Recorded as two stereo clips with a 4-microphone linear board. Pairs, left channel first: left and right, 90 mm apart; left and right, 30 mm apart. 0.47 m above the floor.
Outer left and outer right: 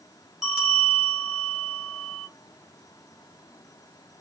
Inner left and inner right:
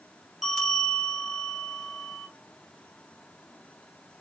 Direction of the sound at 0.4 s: 5° right (ahead or behind).